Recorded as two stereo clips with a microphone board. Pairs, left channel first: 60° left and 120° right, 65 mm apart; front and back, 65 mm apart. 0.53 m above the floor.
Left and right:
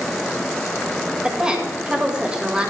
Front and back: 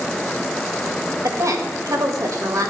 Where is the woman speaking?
165° left, 2.5 m.